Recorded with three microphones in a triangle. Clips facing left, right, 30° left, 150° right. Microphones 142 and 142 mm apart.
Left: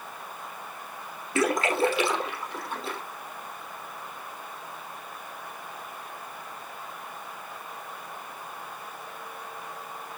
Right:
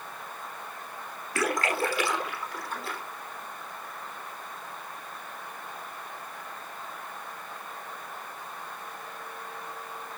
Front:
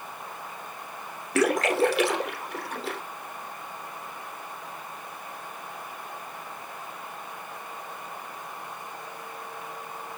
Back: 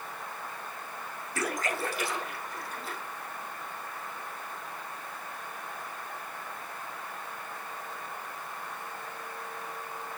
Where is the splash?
20° left, 4 m.